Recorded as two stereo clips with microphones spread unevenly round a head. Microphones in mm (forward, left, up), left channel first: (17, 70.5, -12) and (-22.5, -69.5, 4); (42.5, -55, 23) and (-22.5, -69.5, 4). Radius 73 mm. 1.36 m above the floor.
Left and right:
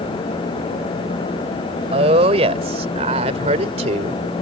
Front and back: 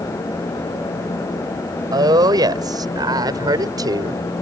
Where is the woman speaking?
155° right; by 4.2 s 150° right.